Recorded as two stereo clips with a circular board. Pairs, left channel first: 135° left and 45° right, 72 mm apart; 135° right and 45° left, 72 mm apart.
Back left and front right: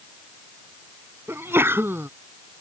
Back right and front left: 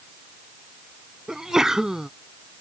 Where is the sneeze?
30° right.